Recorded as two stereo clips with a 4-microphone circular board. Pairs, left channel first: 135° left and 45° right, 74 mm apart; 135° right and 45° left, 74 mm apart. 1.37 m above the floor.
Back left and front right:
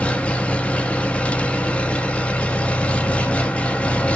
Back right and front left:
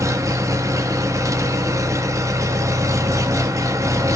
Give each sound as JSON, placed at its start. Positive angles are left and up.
{"t": 0.0, "sound": "an engine running", "azimuth_deg": 70, "distance_m": 1.0}